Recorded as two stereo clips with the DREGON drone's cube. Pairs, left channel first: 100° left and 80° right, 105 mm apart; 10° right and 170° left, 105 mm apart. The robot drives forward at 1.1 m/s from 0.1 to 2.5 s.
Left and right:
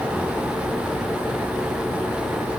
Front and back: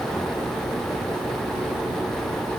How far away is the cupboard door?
I don't hear a cupboard door.